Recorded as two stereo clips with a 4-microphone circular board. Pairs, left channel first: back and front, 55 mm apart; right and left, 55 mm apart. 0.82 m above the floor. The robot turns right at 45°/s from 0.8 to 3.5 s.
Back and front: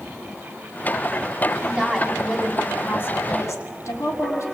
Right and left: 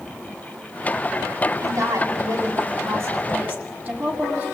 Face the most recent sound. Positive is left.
turn(degrees=150)